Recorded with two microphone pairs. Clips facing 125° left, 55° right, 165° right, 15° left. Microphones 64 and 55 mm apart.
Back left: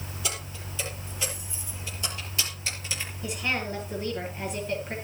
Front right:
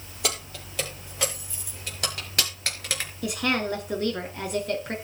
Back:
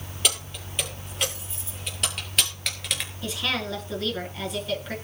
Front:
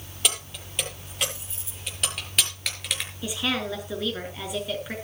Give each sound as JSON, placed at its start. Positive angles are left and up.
{"t": 0.2, "sound": "keys jangling", "azimuth_deg": -75, "distance_m": 8.0}
{"t": 3.2, "sound": "a woman speaking", "azimuth_deg": -65, "distance_m": 6.0}